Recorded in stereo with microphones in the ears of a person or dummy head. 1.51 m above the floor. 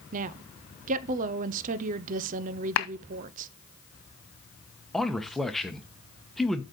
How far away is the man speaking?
About 0.8 m.